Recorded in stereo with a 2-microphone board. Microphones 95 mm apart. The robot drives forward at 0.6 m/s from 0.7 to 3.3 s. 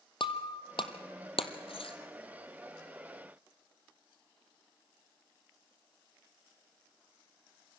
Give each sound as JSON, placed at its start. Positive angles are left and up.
{"t": 0.2, "sound": "breaking glass", "side_deg": 65, "distance_m": 1.4}